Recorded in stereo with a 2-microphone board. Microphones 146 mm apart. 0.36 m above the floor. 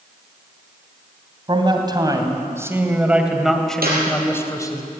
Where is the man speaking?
35° right (ahead or behind), 3 m; by 4.8 s 25° left (ahead or behind), 2.5 m.